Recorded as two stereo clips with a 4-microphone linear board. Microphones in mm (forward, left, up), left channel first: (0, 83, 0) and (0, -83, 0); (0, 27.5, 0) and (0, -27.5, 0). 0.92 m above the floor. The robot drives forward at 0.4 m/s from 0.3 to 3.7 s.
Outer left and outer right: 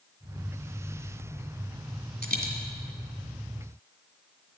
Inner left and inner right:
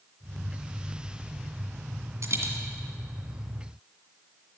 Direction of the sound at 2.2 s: 60° right (ahead or behind).